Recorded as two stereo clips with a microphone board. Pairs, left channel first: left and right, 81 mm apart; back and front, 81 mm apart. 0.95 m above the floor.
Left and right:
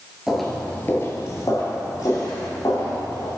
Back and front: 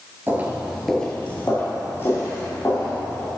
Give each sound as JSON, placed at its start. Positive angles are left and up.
{"t": 0.3, "sound": "footsteps", "azimuth_deg": -10, "distance_m": 1.0}